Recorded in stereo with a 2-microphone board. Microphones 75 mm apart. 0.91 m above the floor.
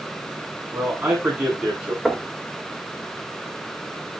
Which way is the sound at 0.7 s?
20° right (ahead or behind).